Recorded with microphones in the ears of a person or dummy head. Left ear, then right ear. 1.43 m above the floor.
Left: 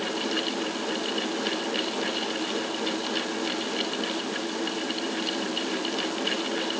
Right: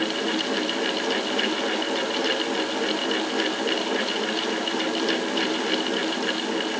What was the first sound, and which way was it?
Only background noise.